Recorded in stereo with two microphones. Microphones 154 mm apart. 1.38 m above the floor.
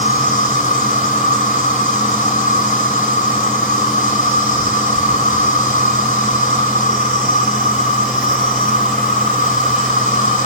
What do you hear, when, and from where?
0.0 s an insect: 55° left (ahead or behind), 3 m